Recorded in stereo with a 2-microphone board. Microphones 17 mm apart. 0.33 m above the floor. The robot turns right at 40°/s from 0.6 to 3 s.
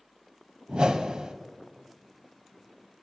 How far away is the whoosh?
About 0.6 m.